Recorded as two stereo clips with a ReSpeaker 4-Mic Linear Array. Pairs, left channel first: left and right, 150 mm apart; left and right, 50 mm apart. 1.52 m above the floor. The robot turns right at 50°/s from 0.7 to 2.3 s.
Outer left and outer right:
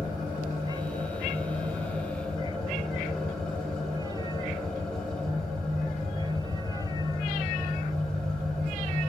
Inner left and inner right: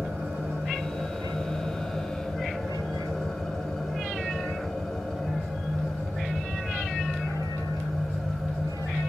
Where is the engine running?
75° right, 3.5 m; by 9.1 s 5° left, 3.5 m.